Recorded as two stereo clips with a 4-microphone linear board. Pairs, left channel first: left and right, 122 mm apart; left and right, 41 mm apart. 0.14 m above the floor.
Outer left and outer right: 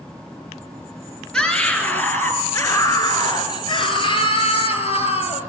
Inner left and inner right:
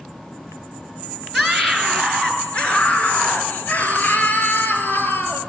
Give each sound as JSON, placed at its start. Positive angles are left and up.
{"t": 1.3, "sound": "a scream", "side_deg": 5, "distance_m": 2.5}